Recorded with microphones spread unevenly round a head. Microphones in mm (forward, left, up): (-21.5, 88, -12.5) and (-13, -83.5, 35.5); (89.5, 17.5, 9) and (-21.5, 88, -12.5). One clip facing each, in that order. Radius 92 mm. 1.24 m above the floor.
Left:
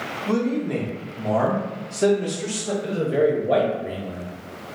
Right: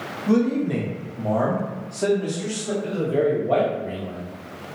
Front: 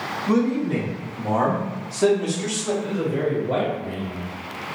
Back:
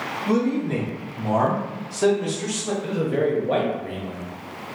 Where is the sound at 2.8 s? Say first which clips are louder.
Left 1 dB, back 5 dB; 160° left, 1.0 m.